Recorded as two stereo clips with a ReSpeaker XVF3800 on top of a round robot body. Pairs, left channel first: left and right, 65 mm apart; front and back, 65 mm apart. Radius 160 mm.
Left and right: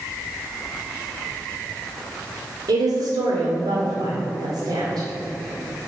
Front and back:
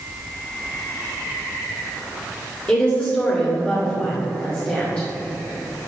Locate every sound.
2.7 s a woman speaking: 70° right, 2.5 m